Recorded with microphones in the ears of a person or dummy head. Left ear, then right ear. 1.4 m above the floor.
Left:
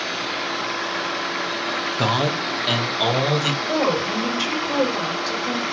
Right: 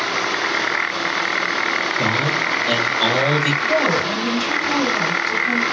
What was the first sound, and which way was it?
A man speaking, 50° left (ahead or behind).